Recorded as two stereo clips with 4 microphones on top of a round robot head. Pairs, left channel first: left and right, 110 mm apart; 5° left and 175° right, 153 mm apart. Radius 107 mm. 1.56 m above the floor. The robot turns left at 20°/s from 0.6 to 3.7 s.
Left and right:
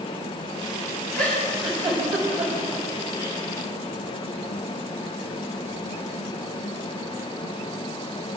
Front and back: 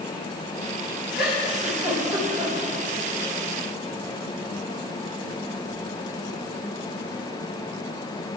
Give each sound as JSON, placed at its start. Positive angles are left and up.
{"t": 1.1, "sound": "a giggle", "azimuth_deg": -90, "distance_m": 7.5}